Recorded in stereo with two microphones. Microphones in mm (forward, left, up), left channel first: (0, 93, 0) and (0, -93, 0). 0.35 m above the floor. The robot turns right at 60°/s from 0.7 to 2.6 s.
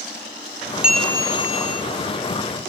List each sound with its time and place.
0.8 s a bell: 5° right, 1.0 m; by 1.8 s 50° left, 1.0 m